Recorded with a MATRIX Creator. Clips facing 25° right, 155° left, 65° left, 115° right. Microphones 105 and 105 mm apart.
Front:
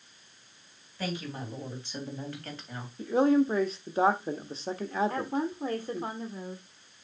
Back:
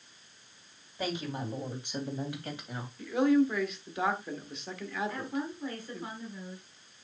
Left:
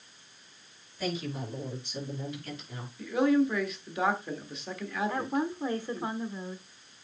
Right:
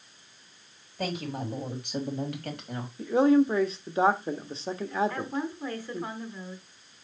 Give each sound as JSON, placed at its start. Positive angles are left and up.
{"t": 1.0, "sound": "a woman speaking", "azimuth_deg": -135, "distance_m": 3.5}
{"t": 3.0, "sound": "a man speaking", "azimuth_deg": -65, "distance_m": 1.2}
{"t": 5.1, "sound": "a woman speaking", "azimuth_deg": 5, "distance_m": 1.5}